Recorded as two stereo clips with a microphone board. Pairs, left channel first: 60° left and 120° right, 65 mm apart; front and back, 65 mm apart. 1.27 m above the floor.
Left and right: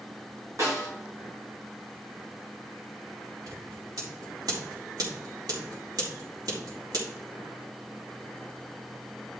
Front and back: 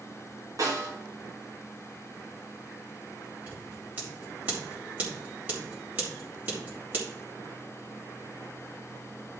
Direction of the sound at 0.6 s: 155° right.